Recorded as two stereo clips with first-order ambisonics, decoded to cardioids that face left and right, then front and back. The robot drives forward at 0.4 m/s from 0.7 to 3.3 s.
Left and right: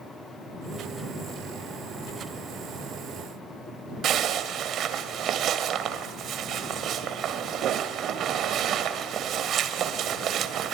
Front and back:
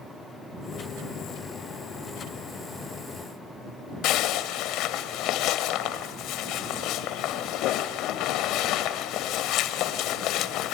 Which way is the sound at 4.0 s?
40° right.